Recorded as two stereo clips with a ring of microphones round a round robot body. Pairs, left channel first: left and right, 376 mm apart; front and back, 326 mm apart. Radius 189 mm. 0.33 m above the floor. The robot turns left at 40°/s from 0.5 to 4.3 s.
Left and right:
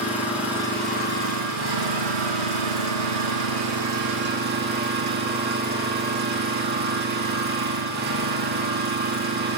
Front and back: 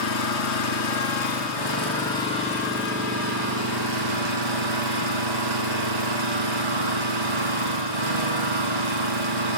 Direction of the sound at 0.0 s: 5° right.